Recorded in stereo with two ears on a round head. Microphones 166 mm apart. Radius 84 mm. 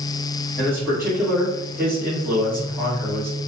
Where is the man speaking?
Centre (ahead or behind), 1.6 m.